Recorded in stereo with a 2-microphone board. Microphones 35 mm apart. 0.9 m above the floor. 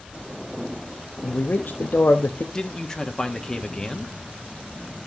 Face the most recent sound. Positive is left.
turn(degrees=15)  # may be behind; listen again after turning